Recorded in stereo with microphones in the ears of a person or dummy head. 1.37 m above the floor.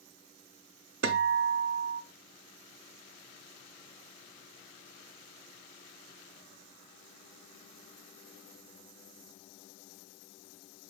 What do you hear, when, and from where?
1.0 s a guitar: 65° right (ahead or behind), 0.5 m